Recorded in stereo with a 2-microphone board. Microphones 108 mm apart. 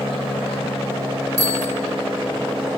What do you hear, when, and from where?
1.4 s a bicycle bell: 75° left (ahead or behind), 3.5 m